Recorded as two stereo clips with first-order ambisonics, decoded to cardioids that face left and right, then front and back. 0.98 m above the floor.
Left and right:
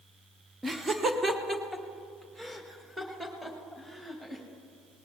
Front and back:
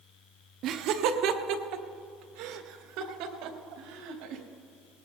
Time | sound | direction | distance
0.6 | laughter | 165° right | 0.9 m